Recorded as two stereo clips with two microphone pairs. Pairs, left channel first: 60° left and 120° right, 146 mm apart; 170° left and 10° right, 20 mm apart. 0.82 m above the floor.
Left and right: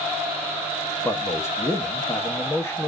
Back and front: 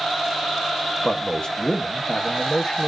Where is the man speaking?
130° left, 1.2 m.